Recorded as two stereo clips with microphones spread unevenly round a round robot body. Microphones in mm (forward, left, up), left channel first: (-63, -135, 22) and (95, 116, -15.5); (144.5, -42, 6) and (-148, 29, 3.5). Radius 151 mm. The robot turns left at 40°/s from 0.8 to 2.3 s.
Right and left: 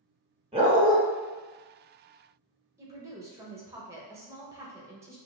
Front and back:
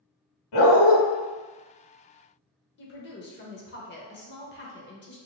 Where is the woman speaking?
5° right, 0.9 m.